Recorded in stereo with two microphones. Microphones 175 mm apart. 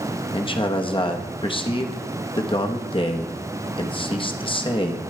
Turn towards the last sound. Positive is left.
turn(degrees=30)  # may be behind; listen again after turning